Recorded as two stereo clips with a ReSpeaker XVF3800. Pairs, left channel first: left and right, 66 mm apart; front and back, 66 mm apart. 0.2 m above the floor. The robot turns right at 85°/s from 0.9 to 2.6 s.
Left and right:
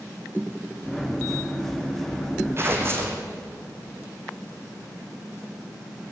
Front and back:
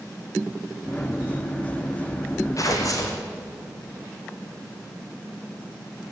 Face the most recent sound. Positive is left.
turn(degrees=-35)